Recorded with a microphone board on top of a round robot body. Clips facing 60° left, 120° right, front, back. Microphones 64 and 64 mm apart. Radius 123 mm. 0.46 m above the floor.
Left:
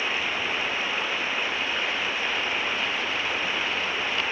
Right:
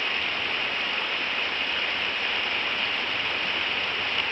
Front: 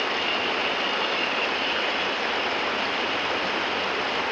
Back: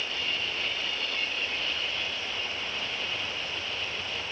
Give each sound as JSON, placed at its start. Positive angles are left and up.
{"t": 0.0, "sound": "running water", "azimuth_deg": -20}